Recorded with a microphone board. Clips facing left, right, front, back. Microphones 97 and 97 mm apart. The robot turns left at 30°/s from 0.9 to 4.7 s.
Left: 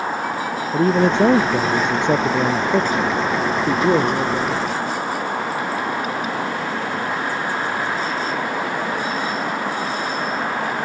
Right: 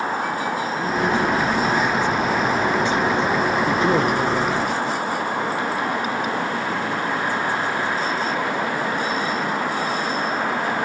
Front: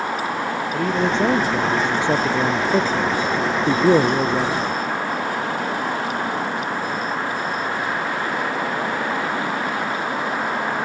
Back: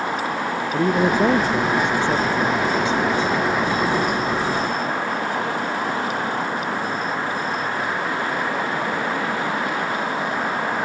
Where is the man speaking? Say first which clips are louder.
Left 7 dB, back 3 dB; 105° left; by 4.8 s 10° right.